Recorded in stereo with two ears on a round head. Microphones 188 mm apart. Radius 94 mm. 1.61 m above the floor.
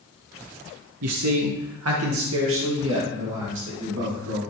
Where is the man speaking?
80° right, 0.8 m; by 4.4 s 65° right (ahead or behind), 3.5 m.